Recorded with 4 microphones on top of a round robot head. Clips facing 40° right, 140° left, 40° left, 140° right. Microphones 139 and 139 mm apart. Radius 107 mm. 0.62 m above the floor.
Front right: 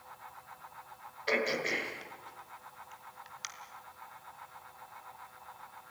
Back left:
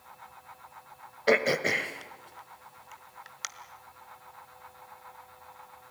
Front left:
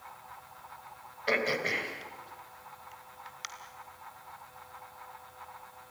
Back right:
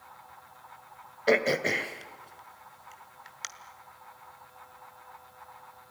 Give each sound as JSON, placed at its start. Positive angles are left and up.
{"t": 1.3, "sound": "throat clearing", "azimuth_deg": 175, "distance_m": 1.7}